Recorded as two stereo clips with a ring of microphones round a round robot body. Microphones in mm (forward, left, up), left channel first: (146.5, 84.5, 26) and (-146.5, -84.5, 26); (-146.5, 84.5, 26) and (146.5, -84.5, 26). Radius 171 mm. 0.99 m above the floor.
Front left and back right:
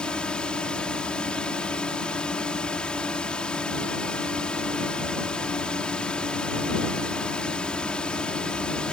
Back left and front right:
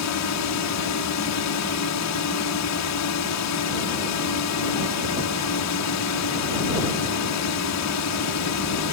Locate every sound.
0.0 s a drone: 115° left